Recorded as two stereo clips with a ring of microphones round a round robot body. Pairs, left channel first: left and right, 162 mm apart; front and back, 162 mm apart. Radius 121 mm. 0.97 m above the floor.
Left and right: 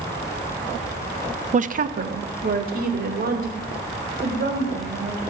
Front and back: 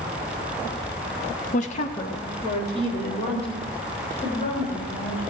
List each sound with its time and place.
1.5 s a woman speaking: 45° right, 0.6 m; by 5.2 s 65° right, 5.5 m